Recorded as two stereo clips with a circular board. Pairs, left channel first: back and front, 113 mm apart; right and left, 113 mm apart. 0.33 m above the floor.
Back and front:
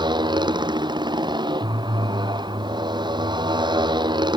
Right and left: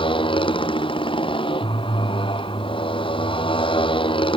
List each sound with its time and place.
0.0 s a motorcycle: 50° right